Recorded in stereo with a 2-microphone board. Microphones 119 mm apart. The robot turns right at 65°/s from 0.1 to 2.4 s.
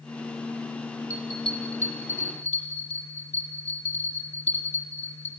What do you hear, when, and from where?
1.1 s a bell: 20° left (ahead or behind), 8.5 m; by 5.3 s 75° left (ahead or behind), 8.5 m